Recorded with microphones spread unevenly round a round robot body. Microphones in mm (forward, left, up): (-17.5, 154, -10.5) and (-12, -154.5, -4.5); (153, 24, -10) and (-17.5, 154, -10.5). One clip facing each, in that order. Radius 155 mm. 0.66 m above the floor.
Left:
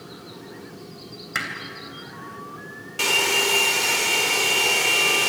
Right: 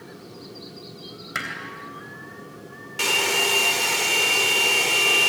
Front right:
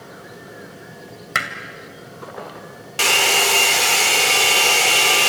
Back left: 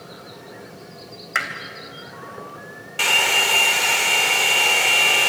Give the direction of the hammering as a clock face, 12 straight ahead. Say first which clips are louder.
Left 1 dB, front right 2 dB; 12 o'clock.